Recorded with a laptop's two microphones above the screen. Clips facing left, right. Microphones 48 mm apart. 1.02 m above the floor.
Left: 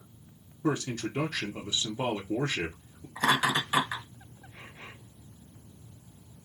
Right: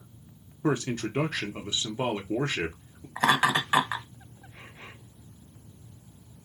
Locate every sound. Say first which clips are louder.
0.6 s a man speaking: right 2 dB; 35° right (ahead or behind), 0.7 m
3.2 s laughter: right 3 dB; 45° right (ahead or behind), 1.0 m